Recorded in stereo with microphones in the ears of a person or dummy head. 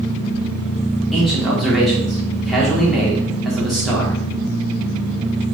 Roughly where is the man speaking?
Centre.